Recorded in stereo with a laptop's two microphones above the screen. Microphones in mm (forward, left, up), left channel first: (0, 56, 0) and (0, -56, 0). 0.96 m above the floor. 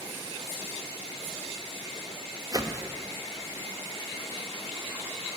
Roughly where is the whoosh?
Right.